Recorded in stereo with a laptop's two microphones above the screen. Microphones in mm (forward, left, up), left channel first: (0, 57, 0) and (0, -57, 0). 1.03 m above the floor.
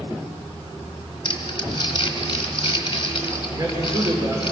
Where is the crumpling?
45° left (ahead or behind), 2.5 m.